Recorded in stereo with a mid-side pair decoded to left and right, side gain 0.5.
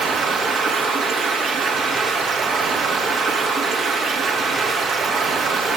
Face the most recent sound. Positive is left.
turn(degrees=-60)